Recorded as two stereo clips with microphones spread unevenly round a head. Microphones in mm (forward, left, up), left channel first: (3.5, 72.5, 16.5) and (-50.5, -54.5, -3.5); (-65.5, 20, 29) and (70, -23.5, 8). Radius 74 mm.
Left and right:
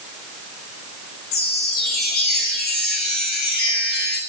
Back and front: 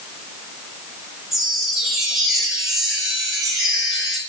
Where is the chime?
70° left, 4 m.